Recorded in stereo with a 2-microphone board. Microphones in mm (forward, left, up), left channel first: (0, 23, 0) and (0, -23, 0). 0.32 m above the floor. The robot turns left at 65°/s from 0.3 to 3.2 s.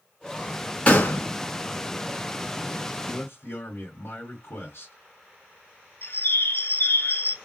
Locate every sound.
0.9 s a gunshot: 30° left (ahead or behind), 1.6 m; by 1.3 s 55° left (ahead or behind), 1.6 m
3.0 s a man speaking: 50° left (ahead or behind), 2 m; by 4.9 s 55° left (ahead or behind), 2 m
6.0 s a bird: 55° left (ahead or behind), 1.4 m